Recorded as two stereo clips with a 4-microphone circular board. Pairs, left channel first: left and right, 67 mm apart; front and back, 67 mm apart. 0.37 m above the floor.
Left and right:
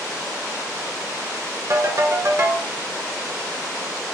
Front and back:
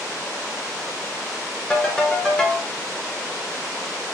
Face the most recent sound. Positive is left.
turn(degrees=-75)